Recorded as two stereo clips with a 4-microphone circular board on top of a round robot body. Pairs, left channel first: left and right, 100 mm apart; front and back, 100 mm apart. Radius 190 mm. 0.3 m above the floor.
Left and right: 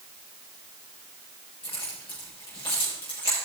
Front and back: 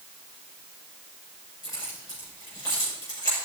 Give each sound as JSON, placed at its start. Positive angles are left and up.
{"t": 1.6, "sound": "keys jangling", "azimuth_deg": 55, "distance_m": 6.0}